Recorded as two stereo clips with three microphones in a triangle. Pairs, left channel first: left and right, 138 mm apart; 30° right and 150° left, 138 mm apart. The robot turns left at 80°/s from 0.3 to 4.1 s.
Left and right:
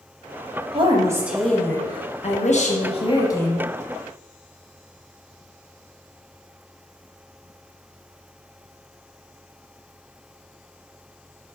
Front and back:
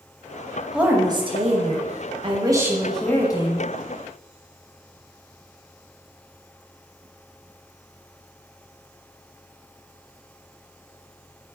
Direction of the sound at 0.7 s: 125° right.